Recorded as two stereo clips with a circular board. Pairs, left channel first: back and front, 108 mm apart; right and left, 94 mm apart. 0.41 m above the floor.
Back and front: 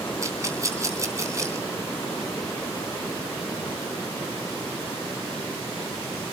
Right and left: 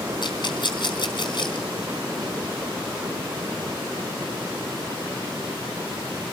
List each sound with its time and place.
0.2 s a rattle: 60° right, 3.5 m